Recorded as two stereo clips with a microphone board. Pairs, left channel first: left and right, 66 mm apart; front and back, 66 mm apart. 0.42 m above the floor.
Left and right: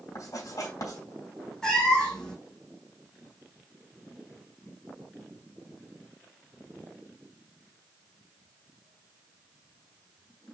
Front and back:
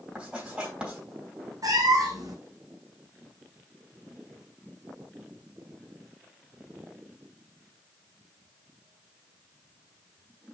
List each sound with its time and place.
0.1 s writing: 110° left, 3.5 m
1.6 s a cat meowing: 170° left, 1.9 m